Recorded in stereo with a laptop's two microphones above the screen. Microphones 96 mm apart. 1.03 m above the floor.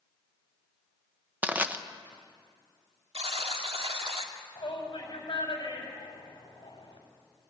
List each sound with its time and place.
1.4 s crushing: 15° right (ahead or behind), 0.9 m
3.1 s a buzzer: 85° right, 2 m
4.5 s a shout: 55° left (ahead or behind), 7 m